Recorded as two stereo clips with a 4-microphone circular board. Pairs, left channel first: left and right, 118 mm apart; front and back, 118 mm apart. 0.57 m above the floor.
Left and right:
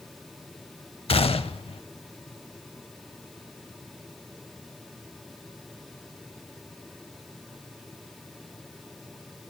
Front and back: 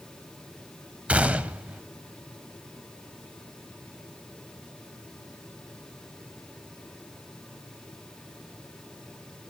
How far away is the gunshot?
About 0.5 m.